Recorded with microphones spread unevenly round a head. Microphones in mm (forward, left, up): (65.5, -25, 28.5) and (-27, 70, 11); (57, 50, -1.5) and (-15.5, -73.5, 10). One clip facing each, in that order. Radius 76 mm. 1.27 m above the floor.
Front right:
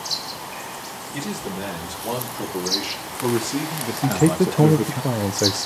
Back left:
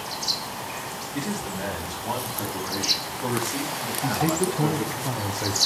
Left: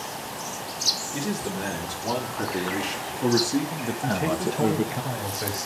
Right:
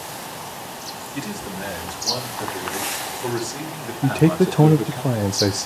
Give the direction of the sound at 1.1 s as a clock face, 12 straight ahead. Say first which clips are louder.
Front right 1 dB, left 2 dB; 11 o'clock.